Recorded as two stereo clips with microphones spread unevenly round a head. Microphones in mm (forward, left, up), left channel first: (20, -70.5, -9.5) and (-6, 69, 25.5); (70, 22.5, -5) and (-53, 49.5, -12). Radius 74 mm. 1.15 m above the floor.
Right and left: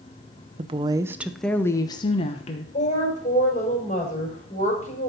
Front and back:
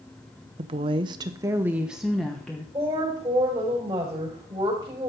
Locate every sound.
0.6 s a woman speaking: 155° left, 0.7 m; by 2.6 s 95° right, 1.0 m
2.7 s a woman speaking: 125° right, 5 m